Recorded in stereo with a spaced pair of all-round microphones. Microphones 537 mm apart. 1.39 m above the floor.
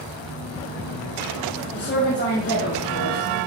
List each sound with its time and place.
1.7 s a woman speaking: 20° left (ahead or behind), 1.3 m